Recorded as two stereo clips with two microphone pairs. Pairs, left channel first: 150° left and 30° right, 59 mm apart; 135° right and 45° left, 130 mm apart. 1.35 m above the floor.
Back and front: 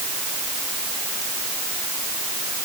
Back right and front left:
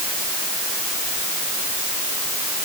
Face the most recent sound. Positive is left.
No sound to turn to.